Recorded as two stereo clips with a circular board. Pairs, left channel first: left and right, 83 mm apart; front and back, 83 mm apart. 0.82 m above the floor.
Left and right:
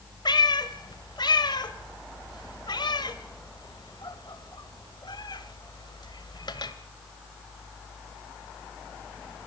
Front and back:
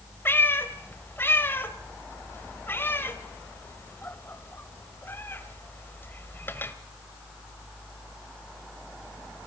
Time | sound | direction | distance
0.2 | a cat meowing | 65° left | 1.3 m